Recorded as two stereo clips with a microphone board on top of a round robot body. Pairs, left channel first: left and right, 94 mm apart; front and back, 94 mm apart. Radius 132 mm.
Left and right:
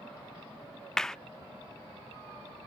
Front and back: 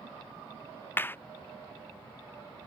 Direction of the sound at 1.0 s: 15° left.